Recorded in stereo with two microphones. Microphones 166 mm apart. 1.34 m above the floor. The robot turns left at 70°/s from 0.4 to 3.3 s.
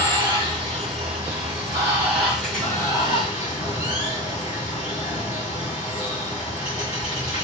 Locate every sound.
0.0 s running water: 50° right, 1.4 m; by 7.5 s 110° left, 1.4 m